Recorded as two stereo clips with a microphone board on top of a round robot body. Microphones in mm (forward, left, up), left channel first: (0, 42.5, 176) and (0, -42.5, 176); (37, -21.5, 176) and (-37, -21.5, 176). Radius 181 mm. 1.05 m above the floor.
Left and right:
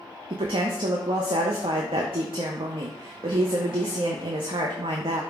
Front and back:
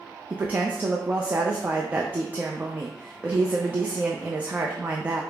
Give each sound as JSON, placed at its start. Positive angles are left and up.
{"t": 0.3, "sound": "a woman speaking", "azimuth_deg": -110, "distance_m": 0.6}